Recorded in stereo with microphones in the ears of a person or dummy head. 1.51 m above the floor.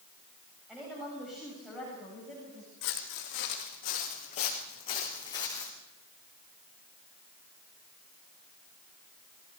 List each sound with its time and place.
0.7 s a woman speaking: centre (ahead or behind), 7 m
2.8 s footsteps: 65° left (ahead or behind), 4 m; by 5.7 s 15° left (ahead or behind), 4.5 m